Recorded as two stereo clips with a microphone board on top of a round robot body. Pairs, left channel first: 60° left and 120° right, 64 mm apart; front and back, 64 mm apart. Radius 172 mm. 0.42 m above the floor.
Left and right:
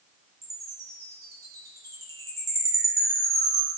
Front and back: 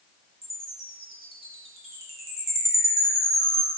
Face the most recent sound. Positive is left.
turn(degrees=-90)